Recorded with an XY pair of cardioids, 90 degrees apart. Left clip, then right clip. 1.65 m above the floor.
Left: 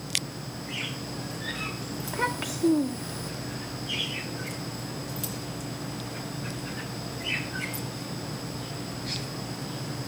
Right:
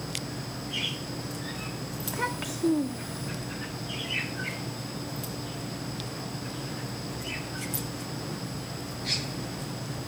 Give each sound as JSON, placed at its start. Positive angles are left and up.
{"t": 2.0, "sound": "a child speaking", "azimuth_deg": 15}